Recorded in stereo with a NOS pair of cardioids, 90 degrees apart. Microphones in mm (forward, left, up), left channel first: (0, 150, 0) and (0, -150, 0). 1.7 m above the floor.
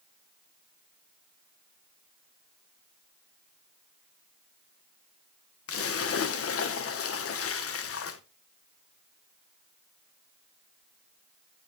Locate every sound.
5.7 s a splash: 50° left, 1.5 m